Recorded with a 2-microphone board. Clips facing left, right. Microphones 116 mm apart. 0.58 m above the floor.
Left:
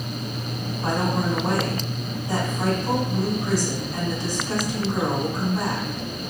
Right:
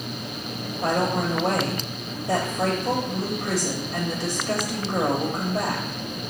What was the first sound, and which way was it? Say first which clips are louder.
A woman speaking: right 1 dB; 70° right (ahead or behind).